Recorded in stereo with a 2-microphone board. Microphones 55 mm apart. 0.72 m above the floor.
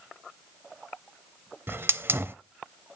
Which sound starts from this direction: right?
A hiss, at 1.7 s.